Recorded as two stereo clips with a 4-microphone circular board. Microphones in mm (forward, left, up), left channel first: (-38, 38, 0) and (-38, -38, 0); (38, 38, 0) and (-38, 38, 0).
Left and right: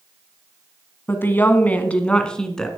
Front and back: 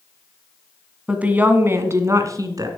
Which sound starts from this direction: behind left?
A woman speaking, at 1.1 s.